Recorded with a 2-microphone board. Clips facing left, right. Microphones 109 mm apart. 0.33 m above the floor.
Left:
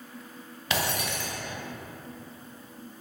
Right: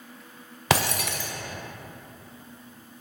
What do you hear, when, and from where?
0.7 s breaking glass: 80° right, 0.5 m